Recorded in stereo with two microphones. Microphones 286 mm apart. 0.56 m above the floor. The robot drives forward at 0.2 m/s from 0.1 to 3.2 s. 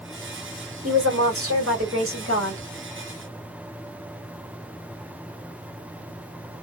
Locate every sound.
0.8 s a woman speaking: 50° right (ahead or behind), 1.9 m; by 2.7 s 45° right (ahead or behind), 2 m